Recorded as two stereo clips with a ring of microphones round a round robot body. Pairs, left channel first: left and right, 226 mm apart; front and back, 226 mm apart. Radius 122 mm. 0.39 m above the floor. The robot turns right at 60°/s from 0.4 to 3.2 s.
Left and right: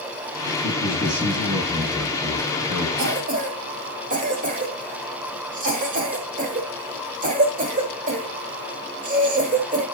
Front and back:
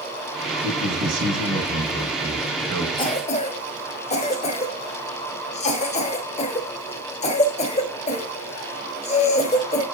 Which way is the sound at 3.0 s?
60° right.